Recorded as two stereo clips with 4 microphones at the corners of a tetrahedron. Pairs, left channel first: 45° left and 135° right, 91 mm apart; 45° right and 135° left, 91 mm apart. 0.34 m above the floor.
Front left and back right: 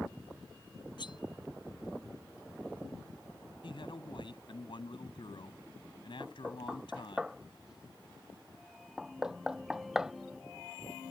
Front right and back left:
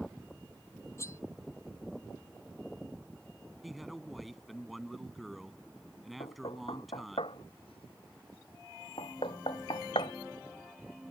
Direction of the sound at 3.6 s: 45° left.